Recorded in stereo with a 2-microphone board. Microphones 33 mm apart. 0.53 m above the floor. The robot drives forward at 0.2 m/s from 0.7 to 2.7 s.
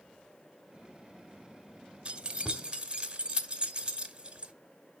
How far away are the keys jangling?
About 0.8 m.